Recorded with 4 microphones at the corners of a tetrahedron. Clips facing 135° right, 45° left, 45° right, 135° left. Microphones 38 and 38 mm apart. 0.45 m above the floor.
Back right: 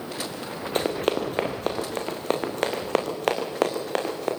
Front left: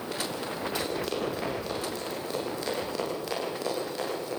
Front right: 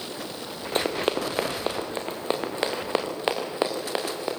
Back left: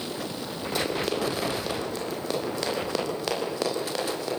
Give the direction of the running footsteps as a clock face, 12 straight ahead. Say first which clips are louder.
Back right 9 dB, front right 2 dB; 3 o'clock.